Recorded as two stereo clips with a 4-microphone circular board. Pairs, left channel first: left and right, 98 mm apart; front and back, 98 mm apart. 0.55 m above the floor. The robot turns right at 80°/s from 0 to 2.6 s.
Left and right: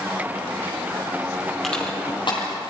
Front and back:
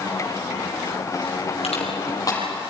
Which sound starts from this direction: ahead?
Crushing, at 1.6 s.